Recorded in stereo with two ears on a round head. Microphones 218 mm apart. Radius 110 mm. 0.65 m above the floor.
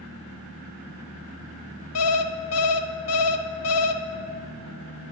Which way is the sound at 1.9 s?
60° left (ahead or behind).